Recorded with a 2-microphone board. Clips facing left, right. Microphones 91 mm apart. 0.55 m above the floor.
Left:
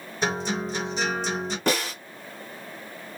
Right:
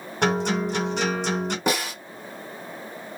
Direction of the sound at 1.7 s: 10° right (ahead or behind).